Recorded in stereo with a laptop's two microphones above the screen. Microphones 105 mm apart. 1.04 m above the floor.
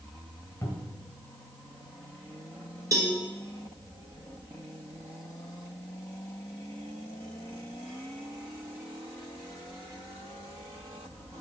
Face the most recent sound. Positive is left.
turn(degrees=-30)  # may be behind; listen again after turning